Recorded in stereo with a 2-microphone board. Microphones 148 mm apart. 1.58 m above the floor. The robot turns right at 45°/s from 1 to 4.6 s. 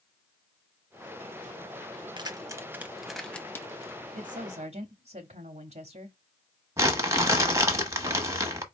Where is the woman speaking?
70° right (ahead or behind), 0.7 m; by 6.2 s 50° right (ahead or behind), 0.7 m.